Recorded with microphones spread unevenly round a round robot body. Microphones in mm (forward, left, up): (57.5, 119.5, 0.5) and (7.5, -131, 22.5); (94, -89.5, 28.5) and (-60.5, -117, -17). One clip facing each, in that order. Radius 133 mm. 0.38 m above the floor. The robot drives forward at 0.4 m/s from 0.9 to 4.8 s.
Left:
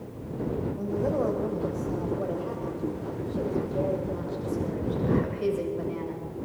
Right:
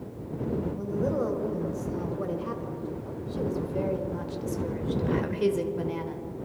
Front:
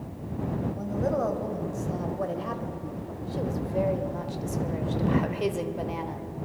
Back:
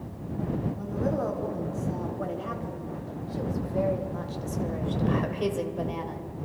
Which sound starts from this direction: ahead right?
A woman speaking, at 0.8 s.